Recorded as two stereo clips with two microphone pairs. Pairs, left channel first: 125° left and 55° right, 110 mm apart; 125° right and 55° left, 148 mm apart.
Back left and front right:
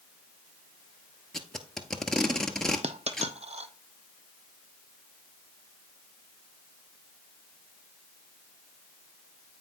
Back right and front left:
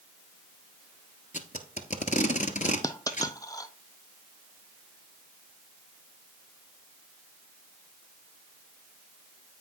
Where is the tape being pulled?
145° right, 1.0 m.